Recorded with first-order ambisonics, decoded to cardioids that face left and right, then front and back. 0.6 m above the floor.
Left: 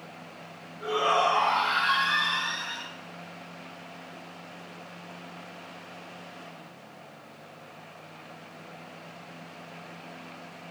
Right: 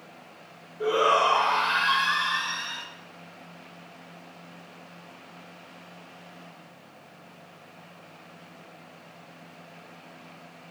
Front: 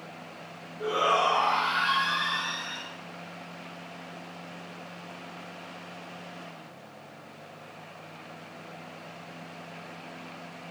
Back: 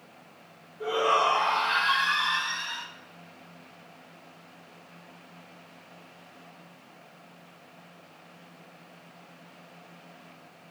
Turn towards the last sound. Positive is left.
turn(degrees=-130)